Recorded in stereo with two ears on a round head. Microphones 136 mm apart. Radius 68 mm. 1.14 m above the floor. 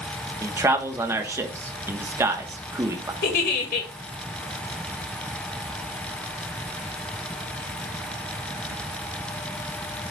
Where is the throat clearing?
I don't hear throat clearing.